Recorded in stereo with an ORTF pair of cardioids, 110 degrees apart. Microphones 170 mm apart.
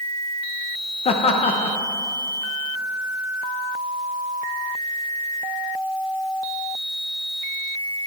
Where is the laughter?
40° left, 0.8 m.